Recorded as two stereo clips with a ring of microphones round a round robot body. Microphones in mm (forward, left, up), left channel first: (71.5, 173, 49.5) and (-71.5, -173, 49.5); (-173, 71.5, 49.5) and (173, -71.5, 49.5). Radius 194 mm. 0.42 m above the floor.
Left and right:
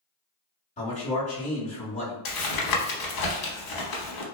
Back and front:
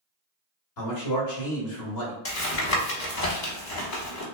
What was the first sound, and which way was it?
A man speaking, 135° left.